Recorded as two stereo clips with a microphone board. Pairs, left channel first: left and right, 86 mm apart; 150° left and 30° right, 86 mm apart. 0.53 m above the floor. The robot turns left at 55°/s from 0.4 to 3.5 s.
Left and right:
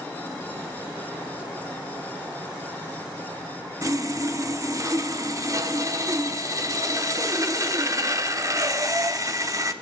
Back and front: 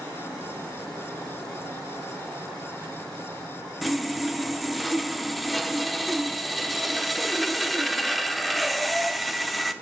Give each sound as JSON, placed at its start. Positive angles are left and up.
{"t": 3.8, "sound": "sawing", "azimuth_deg": -120, "distance_m": 0.9}